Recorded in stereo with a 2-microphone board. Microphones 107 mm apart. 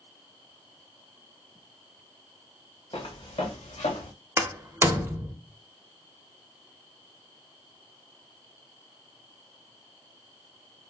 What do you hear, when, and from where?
2.9 s footsteps: 55° left (ahead or behind), 1.0 m; by 4.1 s 70° left (ahead or behind), 1.0 m
4.4 s a door slam: 25° right (ahead or behind), 0.6 m